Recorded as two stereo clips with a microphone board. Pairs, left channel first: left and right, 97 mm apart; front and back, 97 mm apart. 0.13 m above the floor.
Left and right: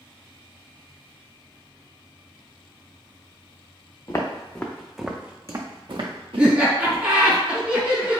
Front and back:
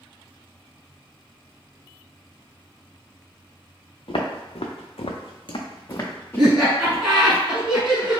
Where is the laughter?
110° right, 1.1 m.